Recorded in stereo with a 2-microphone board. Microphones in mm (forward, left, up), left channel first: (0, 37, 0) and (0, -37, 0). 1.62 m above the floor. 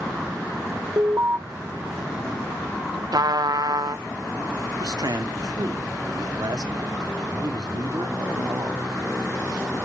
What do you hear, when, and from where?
1.0 s an alarm: 45° right (ahead or behind), 0.7 m
3.1 s a trumpet: 60° right (ahead or behind), 0.5 m
4.8 s a man speaking: 65° right (ahead or behind), 1.0 m